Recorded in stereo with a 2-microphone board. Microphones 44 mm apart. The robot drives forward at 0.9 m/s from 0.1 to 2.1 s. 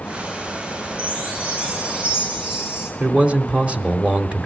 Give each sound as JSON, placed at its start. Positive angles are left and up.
{"t": 1.0, "sound": "a chime", "side_deg": -25, "distance_m": 2.0}
{"t": 3.0, "sound": "a man speaking", "side_deg": -30, "distance_m": 1.1}